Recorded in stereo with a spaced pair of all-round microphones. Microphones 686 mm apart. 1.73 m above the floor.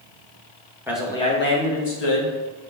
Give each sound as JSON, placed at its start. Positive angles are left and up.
{"t": 0.9, "sound": "a man speaking", "side_deg": -5, "distance_m": 0.9}